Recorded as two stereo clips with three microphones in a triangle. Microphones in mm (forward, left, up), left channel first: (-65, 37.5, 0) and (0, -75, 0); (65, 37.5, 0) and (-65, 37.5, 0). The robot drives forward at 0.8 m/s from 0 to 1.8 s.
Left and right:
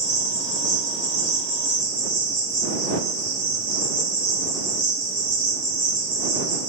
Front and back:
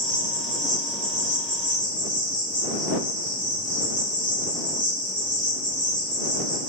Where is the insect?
160° left, 1.3 m; by 6.7 s 170° left, 2.5 m.